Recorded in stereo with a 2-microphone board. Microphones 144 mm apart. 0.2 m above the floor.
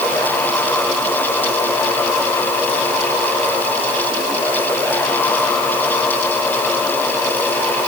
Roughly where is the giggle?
I don't hear a giggle.